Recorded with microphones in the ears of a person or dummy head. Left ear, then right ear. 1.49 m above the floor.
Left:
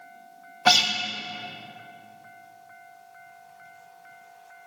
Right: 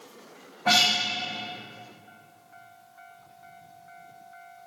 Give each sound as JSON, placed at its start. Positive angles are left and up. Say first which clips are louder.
{"t": 0.7, "sound": "a guitar", "louder": "left 1 dB", "side_deg": 70, "distance_m": 0.7}